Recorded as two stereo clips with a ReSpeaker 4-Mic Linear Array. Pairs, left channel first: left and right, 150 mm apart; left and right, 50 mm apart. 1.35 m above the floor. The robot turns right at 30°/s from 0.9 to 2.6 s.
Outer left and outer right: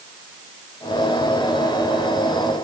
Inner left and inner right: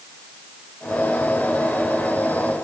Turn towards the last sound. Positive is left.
No sound to turn to.